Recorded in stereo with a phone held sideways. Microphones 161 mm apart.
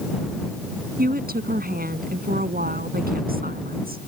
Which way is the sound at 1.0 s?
70° right (ahead or behind).